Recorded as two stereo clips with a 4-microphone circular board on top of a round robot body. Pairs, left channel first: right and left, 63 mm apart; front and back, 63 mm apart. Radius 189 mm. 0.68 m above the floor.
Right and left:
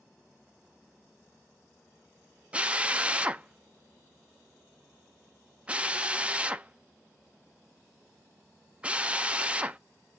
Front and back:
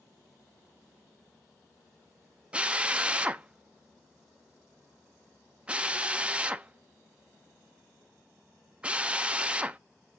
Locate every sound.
2.5 s a drill: 135° left, 0.9 m